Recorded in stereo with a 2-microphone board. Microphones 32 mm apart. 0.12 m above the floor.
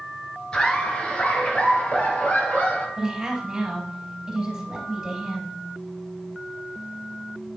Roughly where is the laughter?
Left.